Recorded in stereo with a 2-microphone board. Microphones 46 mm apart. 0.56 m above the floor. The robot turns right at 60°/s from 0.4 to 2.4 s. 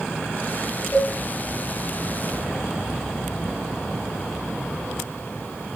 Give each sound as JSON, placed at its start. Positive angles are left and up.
{"t": 0.9, "sound": "a cowbell", "side_deg": 45, "distance_m": 3.0}